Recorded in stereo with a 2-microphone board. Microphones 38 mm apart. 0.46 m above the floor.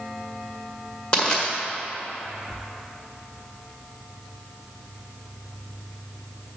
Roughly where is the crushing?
Left.